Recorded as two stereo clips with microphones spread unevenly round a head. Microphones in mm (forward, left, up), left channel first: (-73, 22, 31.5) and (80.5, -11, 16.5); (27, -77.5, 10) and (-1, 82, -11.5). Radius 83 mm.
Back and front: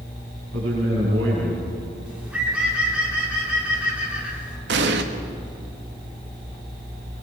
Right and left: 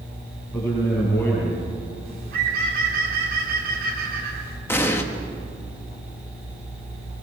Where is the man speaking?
Straight ahead, 8 m.